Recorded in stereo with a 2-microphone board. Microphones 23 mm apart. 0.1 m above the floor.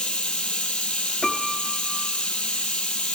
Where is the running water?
65° left (ahead or behind), 1.1 m.